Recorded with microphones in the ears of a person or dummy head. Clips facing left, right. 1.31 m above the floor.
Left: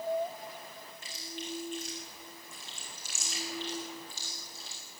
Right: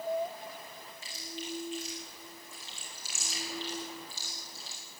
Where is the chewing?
50° left (ahead or behind), 8 m.